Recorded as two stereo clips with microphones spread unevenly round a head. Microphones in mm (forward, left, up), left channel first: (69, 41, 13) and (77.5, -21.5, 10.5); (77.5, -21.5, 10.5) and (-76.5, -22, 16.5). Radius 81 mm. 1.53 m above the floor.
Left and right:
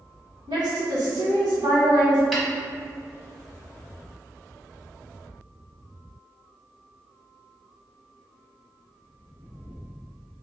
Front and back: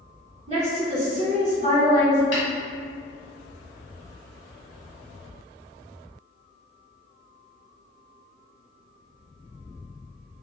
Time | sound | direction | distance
0.5 | a woman speaking | 130° right | 1.7 m
2.3 | a snare drum | 5° left | 1.2 m